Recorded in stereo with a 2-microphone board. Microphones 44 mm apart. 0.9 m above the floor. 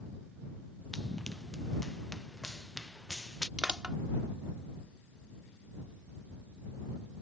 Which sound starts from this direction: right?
Crushing, at 3.6 s.